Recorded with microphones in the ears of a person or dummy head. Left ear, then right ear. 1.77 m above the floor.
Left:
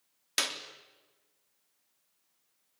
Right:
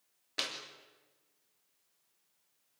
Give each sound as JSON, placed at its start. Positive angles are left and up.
{"t": 0.4, "sound": "a clap", "side_deg": 70, "distance_m": 3.0}